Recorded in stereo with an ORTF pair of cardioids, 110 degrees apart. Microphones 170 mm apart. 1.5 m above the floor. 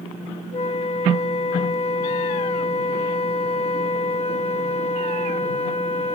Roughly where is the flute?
Ahead left.